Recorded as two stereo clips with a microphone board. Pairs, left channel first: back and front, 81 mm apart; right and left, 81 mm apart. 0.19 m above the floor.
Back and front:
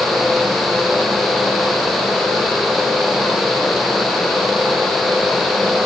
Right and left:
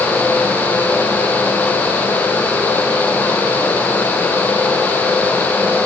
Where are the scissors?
I don't hear scissors.